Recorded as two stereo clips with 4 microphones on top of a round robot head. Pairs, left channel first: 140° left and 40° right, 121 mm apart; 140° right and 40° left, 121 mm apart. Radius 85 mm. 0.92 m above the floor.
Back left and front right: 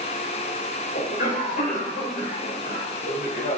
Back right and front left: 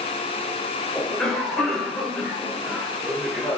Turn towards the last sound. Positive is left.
turn(degrees=130)